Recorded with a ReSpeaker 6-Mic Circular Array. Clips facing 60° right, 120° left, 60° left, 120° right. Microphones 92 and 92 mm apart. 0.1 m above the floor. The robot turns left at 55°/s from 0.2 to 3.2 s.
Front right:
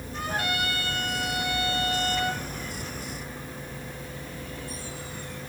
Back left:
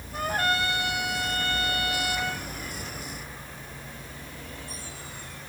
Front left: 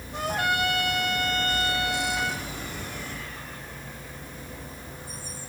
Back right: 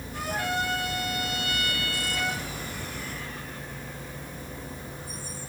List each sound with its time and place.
0.1 s a trumpet: 85° left, 2 m; by 2.4 s 40° right, 2 m